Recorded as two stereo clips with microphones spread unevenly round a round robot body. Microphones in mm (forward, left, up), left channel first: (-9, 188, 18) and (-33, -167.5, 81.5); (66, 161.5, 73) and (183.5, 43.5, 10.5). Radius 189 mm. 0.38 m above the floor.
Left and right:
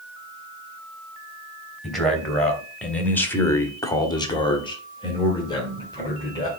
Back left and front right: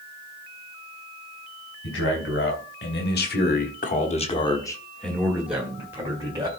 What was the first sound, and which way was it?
A man speaking, 170° left.